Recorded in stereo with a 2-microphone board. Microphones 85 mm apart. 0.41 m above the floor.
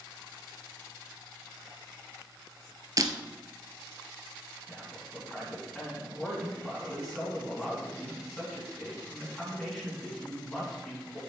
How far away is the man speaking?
About 4 m.